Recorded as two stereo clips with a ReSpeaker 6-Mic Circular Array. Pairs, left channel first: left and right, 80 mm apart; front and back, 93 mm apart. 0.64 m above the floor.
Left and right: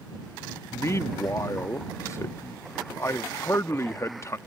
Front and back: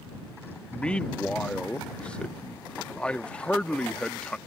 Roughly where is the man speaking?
Left.